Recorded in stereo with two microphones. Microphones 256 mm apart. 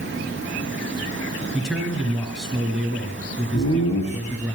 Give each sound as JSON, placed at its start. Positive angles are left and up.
{"t": 1.5, "sound": "a man speaking", "side_deg": 0, "distance_m": 4.0}
{"t": 3.5, "sound": "laughter", "side_deg": 65, "distance_m": 5.0}